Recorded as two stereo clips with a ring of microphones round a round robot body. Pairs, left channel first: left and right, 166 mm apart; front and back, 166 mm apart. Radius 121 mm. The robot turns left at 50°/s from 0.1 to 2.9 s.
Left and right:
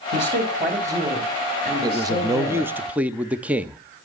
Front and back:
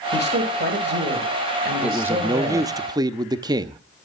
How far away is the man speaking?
About 0.6 m.